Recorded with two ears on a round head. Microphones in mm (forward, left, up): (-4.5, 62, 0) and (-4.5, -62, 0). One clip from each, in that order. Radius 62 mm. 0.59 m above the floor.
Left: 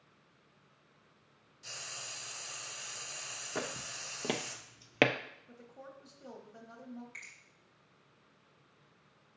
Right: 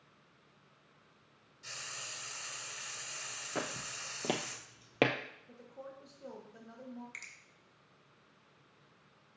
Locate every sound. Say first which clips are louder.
1.6 s frying: even; centre (ahead or behind), 1.2 m
3.5 s footsteps: even; 5° right (ahead or behind), 1.3 m; by 5.1 s 30° left (ahead or behind), 0.6 m
5.5 s a woman speaking: right 2 dB; 30° left (ahead or behind), 1.0 m
7.1 s a finger snap: right 1 dB; 60° right (ahead or behind), 1.9 m